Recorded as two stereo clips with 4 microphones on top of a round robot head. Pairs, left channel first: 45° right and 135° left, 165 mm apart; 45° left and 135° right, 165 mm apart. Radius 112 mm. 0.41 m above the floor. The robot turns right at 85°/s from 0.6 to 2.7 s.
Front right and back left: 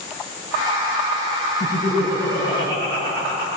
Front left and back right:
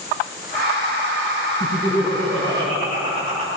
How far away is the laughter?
About 5.5 m.